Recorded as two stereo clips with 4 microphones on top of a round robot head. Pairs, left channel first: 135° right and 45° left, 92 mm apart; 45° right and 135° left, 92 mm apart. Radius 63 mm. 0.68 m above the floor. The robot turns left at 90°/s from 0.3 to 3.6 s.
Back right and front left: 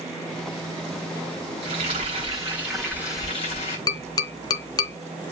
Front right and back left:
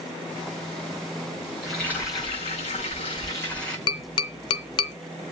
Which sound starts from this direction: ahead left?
Frying, at 1.6 s.